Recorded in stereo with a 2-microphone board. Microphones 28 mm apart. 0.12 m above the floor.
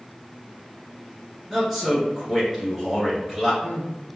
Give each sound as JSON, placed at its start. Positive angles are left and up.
{"t": 1.5, "sound": "a man speaking", "side_deg": -5, "distance_m": 1.8}